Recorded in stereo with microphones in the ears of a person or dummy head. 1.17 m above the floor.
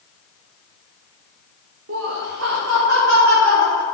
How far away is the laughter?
About 1.6 m.